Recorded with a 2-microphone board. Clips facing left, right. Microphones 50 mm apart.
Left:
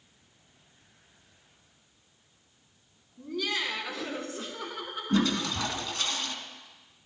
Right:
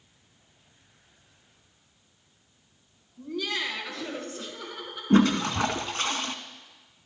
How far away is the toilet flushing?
About 0.7 m.